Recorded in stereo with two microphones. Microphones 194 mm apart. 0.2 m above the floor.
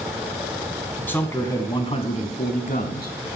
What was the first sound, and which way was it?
A man speaking, 10° left (ahead or behind).